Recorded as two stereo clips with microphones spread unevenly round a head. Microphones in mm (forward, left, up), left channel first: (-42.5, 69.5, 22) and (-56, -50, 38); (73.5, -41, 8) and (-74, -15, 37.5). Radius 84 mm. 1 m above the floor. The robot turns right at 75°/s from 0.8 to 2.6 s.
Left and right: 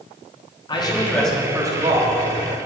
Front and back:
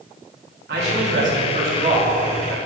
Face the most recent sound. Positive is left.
turn(degrees=-90)